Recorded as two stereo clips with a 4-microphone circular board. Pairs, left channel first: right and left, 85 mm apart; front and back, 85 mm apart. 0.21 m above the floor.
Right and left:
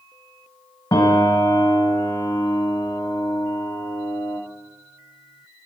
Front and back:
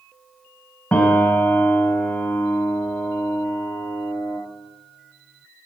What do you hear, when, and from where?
0.9 s a piano: 60° right, 0.9 m